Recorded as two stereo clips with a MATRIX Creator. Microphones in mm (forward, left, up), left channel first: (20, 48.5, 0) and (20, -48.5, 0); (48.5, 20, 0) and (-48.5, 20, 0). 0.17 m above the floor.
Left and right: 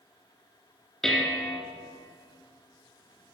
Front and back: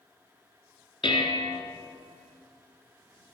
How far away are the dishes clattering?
About 1.7 m.